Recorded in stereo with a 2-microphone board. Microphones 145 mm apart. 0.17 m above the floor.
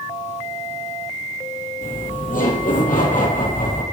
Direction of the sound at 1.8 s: 70° left (ahead or behind).